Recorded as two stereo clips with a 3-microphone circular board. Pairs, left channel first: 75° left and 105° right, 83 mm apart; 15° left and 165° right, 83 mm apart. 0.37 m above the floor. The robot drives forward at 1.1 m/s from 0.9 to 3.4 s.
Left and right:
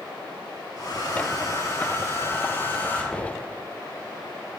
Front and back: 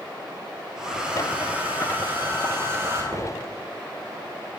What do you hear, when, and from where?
0.8 s a hair dryer: 115° left, 3.5 m; by 3.0 s 140° left, 5 m
3.1 s a microwave: 155° left, 7 m